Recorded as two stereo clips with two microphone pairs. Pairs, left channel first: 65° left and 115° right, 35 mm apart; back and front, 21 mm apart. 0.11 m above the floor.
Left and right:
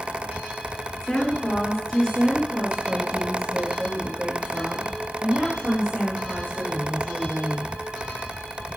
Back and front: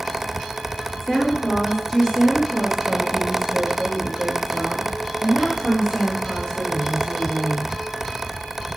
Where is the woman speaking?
110° left, 1.9 m; by 7.7 s 170° left, 5.5 m.